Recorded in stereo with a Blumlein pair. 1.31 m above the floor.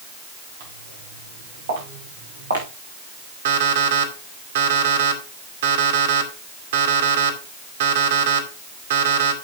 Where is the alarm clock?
60° right, 2 m.